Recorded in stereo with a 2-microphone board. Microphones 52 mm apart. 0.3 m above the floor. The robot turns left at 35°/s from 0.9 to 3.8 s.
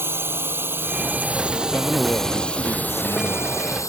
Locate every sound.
0.0 s a drone: 45° right (ahead or behind); by 3.9 s 70° left (ahead or behind)
1.7 s a man speaking: 160° left; by 3.7 s 90° left